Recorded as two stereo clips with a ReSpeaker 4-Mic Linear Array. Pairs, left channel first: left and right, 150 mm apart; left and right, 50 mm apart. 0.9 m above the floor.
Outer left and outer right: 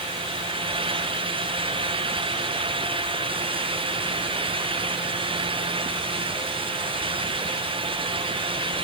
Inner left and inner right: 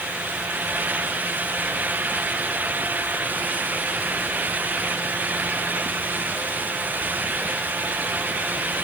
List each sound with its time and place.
Only background noise.